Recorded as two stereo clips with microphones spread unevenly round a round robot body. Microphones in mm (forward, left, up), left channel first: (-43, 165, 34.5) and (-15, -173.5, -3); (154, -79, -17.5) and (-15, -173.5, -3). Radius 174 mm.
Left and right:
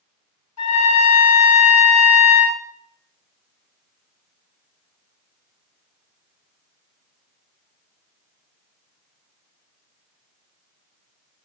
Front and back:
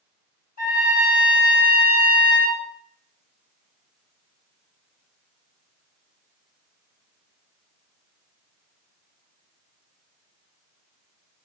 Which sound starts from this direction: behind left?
A trumpet, at 0.6 s.